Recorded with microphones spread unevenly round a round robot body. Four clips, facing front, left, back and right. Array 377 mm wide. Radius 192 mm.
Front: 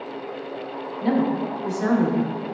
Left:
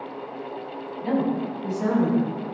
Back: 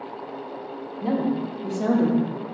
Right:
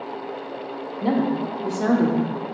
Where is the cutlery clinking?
No cutlery clinking in this recording.